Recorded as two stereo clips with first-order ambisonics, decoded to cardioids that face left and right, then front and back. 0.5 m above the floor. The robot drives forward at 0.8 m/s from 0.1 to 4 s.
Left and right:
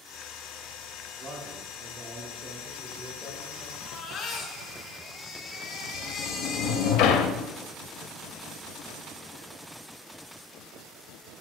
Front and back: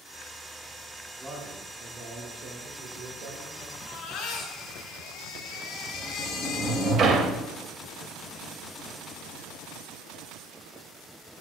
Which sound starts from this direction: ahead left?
A baby crying, at 3.8 s.